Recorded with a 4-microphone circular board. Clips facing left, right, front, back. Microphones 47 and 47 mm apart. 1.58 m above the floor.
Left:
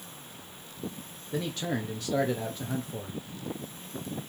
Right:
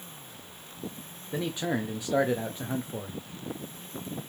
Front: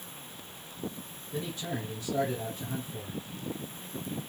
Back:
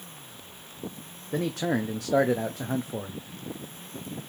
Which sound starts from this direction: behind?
A man speaking, at 1.3 s.